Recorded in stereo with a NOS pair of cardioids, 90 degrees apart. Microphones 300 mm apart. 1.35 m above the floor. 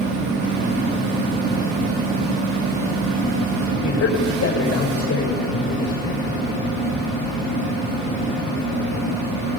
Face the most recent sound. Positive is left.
turn(degrees=50)